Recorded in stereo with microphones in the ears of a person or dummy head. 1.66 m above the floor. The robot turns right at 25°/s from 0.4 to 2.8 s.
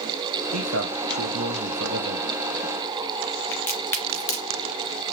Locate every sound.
0.5 s a man speaking: 100° right, 0.8 m; by 2.3 s 55° right, 0.8 m
3.5 s a crack: 10° left (ahead or behind), 1.5 m